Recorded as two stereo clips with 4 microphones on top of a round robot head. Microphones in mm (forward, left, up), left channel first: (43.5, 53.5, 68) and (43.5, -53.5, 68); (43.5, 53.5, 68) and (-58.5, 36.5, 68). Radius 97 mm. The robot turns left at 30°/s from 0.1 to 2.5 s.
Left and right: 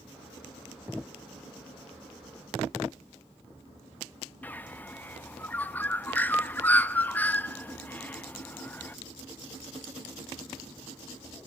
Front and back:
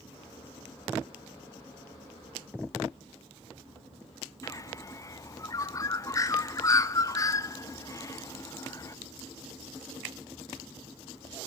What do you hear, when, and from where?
4.4 s a bird: 30° left, 0.6 m